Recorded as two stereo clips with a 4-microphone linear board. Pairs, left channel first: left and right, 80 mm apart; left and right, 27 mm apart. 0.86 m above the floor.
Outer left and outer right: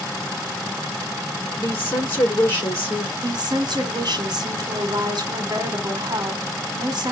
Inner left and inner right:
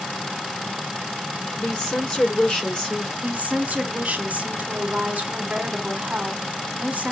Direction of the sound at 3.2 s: 55° right (ahead or behind).